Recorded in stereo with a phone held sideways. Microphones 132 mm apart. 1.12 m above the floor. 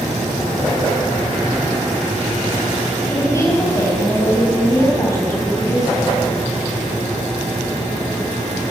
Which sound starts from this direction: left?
A woman speaking, at 3.1 s.